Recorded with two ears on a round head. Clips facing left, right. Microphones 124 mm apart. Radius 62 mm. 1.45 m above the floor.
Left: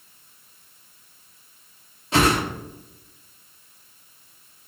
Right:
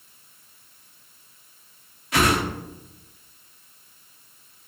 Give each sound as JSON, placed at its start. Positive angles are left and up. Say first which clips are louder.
{"t": 2.1, "sound": "a whoosh", "louder": "left 2 dB", "side_deg": 25, "distance_m": 0.6}